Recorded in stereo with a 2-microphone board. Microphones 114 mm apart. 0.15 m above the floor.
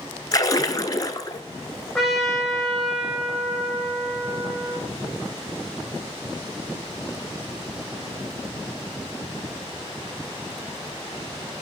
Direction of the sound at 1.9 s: Centre (ahead or behind).